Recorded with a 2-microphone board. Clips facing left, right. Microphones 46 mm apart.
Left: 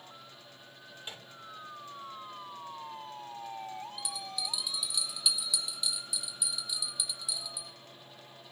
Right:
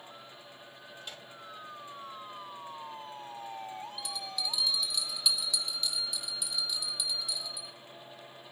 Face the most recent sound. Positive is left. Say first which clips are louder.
# right 1 dB
turn(degrees=10)  # may be behind; listen again after turning